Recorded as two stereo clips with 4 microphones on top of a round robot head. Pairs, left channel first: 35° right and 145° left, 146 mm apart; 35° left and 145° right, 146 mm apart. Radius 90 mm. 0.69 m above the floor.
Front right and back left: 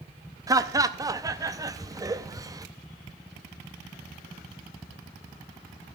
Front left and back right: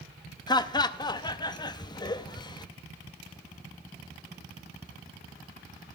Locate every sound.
0.5 s laughter: 85° left, 0.6 m